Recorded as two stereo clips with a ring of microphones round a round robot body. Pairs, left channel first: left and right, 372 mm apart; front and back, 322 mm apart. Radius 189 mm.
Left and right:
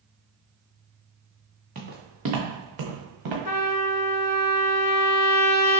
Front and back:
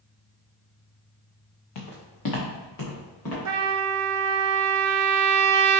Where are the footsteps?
20° right, 1.4 m; by 3.4 s 55° right, 2 m.